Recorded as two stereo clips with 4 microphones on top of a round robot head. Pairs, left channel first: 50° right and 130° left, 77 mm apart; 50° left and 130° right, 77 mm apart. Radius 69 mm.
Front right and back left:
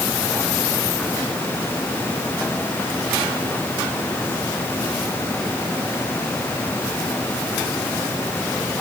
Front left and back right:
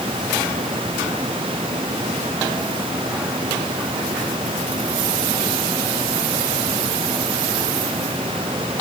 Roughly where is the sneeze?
No sneeze in this recording.